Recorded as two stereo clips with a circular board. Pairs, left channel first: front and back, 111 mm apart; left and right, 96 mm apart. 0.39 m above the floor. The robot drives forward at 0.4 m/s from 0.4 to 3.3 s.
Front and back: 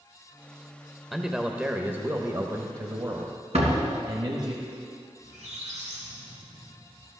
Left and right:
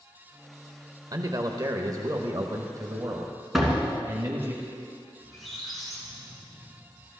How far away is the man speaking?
About 1.0 m.